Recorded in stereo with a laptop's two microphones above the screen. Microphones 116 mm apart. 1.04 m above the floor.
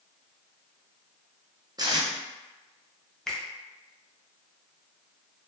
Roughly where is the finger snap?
Centre.